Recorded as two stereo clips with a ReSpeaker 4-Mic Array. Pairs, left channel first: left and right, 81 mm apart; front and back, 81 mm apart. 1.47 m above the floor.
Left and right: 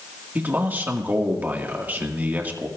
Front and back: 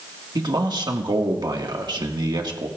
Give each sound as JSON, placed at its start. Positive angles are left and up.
{"t": 0.3, "sound": "a man speaking", "azimuth_deg": -155, "distance_m": 1.7}